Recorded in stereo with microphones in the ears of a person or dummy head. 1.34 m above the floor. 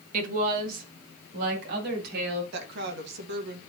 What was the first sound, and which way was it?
A woman speaking, 45° right (ahead or behind).